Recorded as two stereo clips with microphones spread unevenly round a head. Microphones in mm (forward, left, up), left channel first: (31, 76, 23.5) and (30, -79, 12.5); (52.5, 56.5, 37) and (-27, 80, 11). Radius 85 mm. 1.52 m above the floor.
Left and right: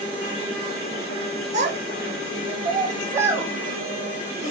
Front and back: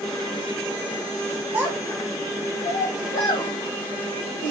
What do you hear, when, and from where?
1.5 s a child speaking: 105° right, 0.7 m; by 4.5 s 5° right, 1.8 m